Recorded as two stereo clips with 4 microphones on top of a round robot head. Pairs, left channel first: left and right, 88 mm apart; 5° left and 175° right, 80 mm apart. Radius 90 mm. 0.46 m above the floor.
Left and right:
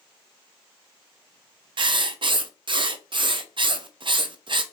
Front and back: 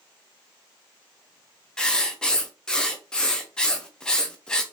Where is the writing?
75° right, 0.6 m.